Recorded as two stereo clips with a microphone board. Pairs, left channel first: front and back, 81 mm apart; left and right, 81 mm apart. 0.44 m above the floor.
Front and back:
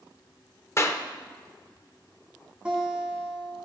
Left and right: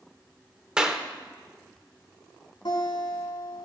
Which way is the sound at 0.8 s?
20° right.